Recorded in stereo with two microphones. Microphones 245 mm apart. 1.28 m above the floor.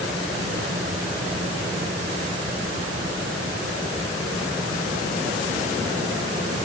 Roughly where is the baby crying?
I don't hear a baby crying.